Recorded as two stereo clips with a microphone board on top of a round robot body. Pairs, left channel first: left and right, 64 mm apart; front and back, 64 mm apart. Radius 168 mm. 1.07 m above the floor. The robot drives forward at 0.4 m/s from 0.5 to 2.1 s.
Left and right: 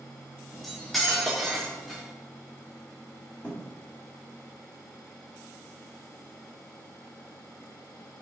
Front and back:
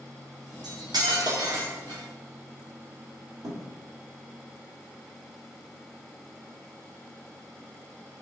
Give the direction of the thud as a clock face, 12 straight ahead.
7 o'clock.